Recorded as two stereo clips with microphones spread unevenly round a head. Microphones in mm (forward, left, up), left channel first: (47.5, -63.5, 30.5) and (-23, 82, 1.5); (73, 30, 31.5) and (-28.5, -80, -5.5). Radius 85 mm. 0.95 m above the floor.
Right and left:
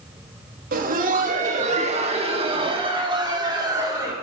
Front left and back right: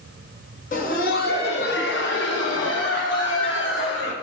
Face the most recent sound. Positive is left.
turn(degrees=50)